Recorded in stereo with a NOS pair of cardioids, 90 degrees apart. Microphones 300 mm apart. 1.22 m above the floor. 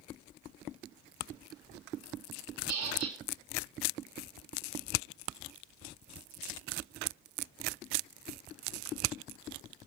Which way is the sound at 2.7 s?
70° right.